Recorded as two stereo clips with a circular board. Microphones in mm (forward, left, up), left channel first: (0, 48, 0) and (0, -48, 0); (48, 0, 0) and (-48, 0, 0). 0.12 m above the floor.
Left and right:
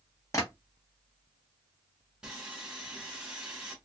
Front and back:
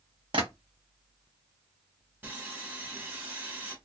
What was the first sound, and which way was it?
Tapping, 145° left.